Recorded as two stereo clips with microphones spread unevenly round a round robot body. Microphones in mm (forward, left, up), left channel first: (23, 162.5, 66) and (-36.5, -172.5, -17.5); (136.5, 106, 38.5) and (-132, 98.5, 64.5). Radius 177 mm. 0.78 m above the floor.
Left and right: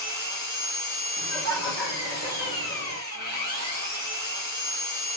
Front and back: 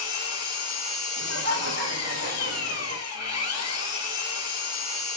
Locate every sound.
0.0 s an engine running: 15° left, 1.4 m
1.2 s laughter: 140° left, 1.5 m